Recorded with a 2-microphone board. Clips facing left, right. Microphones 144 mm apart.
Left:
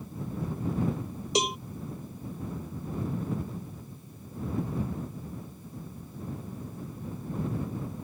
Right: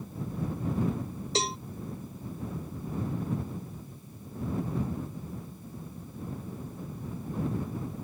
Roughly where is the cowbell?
Centre.